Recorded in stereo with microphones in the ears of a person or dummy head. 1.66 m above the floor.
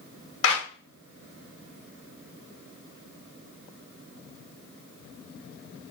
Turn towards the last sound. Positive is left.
turn(degrees=85)